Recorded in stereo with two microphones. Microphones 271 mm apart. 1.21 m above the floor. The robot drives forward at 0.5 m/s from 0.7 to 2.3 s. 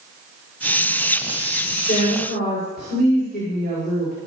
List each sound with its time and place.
1.9 s a woman speaking: 35° left (ahead or behind), 5 m; by 4.1 s 40° left (ahead or behind), 5 m